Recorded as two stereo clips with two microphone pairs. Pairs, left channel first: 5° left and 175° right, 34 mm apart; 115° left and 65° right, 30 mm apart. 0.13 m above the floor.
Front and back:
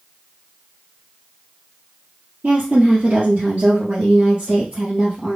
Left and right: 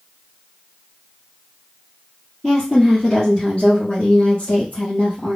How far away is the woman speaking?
About 2.0 m.